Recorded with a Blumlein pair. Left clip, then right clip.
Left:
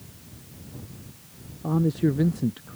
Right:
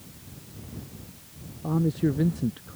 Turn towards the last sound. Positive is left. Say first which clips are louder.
# left 2 dB
turn(degrees=10)